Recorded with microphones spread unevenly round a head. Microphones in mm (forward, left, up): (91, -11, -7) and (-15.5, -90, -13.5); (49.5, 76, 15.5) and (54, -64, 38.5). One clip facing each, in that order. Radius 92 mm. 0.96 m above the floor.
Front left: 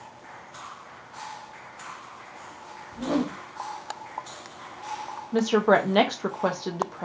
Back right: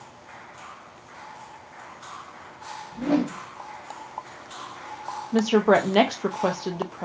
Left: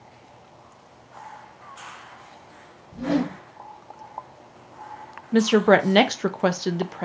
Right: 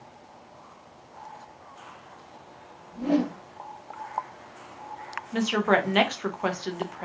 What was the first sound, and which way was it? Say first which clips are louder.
A whoosh: back right 3 dB, left 1 dB; 120° left.